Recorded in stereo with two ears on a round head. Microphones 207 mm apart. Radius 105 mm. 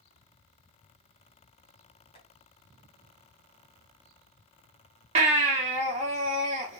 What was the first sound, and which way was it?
Tapping, 25° left (ahead or behind).